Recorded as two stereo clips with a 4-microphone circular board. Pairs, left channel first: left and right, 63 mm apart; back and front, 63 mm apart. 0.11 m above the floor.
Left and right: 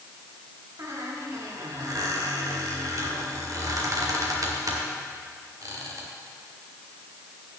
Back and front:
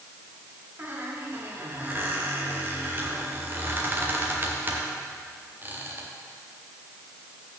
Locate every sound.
0.8 s a squeak: 60° right, 2.5 m